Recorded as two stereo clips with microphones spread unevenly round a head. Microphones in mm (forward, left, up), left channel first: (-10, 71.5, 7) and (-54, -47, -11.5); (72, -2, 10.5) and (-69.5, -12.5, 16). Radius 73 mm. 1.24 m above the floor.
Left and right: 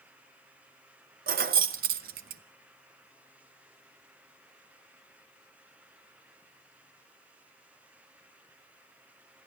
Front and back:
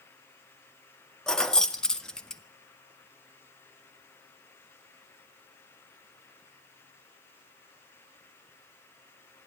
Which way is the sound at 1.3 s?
80° right.